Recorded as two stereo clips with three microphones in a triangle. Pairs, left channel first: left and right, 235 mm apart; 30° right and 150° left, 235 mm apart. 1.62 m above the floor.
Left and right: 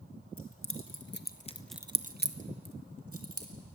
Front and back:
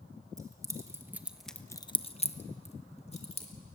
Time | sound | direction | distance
0.4 | keys jangling | 75° left | 2.0 m